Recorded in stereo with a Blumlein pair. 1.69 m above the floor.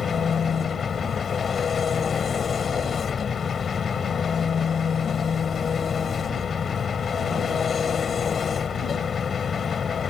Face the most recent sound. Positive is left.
turn(degrees=20)